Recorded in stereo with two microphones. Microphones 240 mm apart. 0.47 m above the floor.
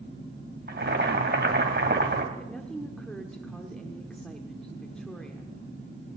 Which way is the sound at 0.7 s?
45° right (ahead or behind).